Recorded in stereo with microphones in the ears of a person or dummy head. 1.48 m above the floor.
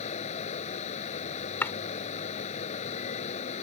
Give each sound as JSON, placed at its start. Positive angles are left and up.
{"t": 0.0, "sound": "running water", "side_deg": 35}
{"t": 1.6, "sound": "chopping", "side_deg": 15}